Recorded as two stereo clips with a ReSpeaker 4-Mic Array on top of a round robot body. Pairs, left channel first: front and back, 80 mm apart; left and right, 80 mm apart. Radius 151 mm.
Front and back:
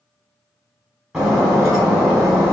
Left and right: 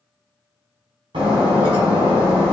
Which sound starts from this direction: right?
Breaking glass, at 1.1 s.